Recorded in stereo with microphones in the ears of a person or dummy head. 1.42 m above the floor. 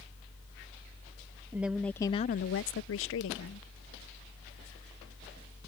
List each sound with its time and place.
1.5 s a woman speaking: 10° right (ahead or behind); by 3.7 s 60° left (ahead or behind)